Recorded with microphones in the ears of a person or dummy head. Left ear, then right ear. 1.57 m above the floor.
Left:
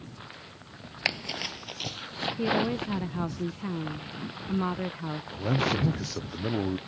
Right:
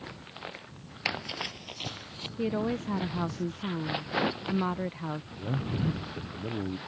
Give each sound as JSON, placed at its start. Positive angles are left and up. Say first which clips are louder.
{"t": 1.1, "sound": "running footsteps", "louder": "left 2 dB", "side_deg": 5}
{"t": 2.4, "sound": "a woman speaking", "louder": "left 2 dB", "side_deg": -5}
{"t": 5.3, "sound": "a man speaking", "louder": "left 8 dB", "side_deg": 55}